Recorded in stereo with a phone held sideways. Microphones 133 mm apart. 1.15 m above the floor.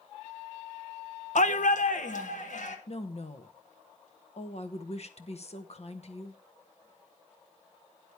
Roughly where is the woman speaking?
Left.